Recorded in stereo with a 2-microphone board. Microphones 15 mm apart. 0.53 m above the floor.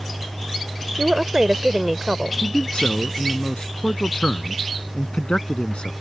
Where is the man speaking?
70° left (ahead or behind).